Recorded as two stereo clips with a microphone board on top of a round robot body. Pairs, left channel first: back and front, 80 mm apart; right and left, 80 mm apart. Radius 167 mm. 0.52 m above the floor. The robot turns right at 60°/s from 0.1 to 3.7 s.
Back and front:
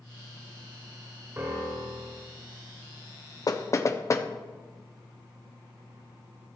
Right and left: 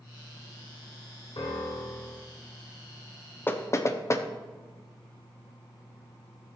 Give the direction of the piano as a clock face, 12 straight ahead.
2 o'clock.